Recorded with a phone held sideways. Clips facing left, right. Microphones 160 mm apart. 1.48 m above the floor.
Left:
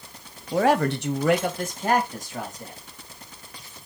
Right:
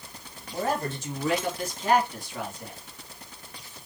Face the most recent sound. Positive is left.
turn(degrees=40)  # may be behind; listen again after turning